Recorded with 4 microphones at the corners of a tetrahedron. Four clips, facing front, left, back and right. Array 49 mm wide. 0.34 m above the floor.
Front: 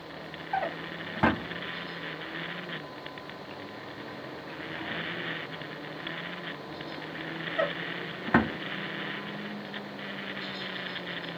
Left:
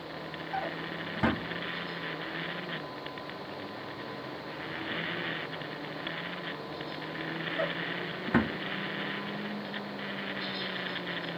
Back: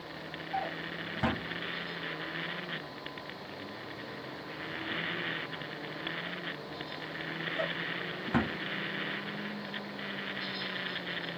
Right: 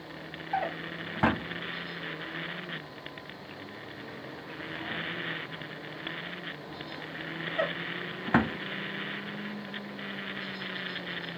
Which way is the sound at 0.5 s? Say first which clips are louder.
Right 3 dB, front 4 dB; 40° right.